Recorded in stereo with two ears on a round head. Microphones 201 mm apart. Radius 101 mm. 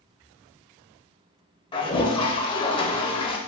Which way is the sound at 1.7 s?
20° left (ahead or behind).